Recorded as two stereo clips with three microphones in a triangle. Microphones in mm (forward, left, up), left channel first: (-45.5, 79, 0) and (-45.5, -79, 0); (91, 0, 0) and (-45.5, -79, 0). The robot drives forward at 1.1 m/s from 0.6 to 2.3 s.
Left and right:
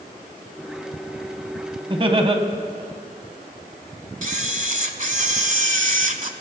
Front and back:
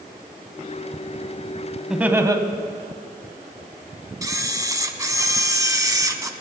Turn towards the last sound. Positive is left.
turn(degrees=-85)